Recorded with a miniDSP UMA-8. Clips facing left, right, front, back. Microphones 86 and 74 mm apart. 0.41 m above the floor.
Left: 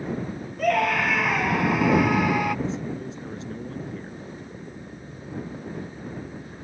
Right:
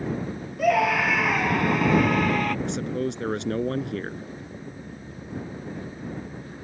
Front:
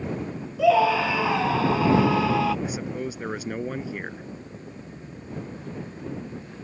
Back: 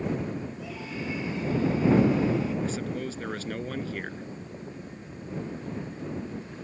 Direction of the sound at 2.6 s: 75° right.